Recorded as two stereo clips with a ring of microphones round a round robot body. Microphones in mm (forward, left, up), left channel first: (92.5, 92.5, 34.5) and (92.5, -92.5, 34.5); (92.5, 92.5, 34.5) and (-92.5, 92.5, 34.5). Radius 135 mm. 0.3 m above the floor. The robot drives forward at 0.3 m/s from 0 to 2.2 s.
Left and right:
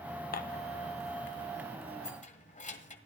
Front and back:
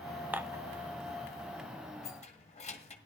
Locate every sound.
0.3 s dishes clattering: 100° left, 0.8 m; by 0.6 s 110° left, 0.8 m
2.0 s keys jangling: 50° left, 1.8 m